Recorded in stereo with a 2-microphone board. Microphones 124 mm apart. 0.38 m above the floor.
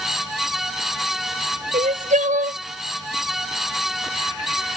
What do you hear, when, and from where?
1.7 s crying: 85° right